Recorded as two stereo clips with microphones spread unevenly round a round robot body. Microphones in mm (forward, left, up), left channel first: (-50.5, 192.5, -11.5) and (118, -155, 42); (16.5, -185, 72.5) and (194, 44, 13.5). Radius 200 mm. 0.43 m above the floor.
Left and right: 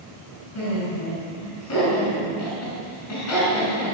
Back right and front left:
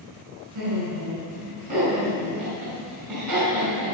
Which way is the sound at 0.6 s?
65° left.